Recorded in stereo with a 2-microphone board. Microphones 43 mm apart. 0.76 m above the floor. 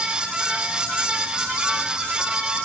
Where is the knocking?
No knocking in this recording.